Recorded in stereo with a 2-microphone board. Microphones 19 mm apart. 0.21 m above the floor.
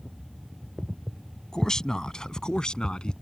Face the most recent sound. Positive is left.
turn(degrees=55)  # may be behind; listen again after turning